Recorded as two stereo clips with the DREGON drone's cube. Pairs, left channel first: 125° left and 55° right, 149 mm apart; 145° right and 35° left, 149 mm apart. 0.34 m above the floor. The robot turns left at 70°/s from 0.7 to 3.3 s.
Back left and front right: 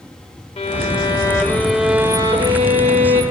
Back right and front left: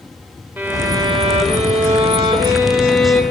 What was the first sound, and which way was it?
A violin, 105° left.